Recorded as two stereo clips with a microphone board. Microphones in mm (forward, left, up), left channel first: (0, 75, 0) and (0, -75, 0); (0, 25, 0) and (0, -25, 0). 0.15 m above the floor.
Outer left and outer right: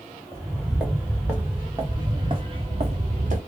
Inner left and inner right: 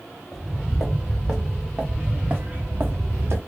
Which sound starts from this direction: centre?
Footsteps, at 0.3 s.